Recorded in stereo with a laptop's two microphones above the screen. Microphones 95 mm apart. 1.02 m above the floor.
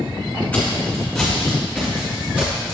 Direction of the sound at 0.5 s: 15° left (ahead or behind).